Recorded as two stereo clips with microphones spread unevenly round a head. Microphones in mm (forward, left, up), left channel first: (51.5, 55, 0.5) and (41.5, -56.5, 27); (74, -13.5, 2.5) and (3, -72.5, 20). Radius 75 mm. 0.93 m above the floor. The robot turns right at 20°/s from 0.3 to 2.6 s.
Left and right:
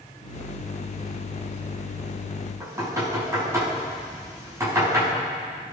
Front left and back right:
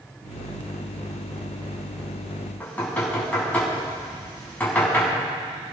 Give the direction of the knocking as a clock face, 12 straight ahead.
1 o'clock.